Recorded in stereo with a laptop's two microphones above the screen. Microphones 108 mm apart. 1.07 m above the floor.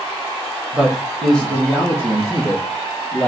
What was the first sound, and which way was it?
A man speaking, 15° right (ahead or behind).